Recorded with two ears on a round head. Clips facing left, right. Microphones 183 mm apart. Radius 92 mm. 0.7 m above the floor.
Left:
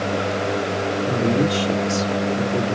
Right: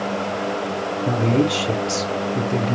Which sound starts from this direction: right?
A man speaking, at 1.1 s.